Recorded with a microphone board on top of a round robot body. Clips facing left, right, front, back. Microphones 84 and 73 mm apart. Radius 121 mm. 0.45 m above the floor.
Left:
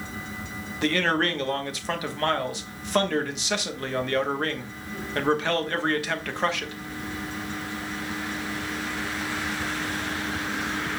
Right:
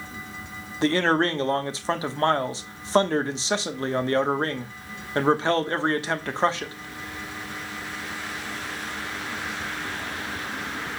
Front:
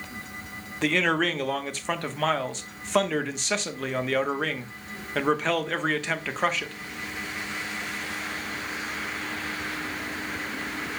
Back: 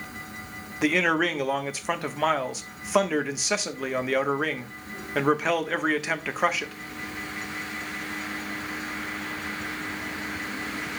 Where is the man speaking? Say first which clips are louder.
Right 3 dB, back 1 dB; 105° right, 1.1 m.